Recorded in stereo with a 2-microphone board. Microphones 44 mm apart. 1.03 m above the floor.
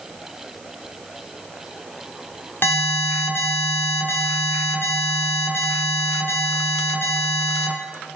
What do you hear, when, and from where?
2.6 s an alarm: 55° left (ahead or behind), 1.8 m